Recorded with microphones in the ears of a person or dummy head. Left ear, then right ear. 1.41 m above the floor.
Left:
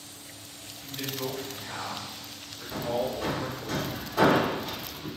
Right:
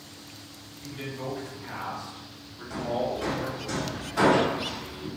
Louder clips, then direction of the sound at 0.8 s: Left 2 dB; centre (ahead or behind).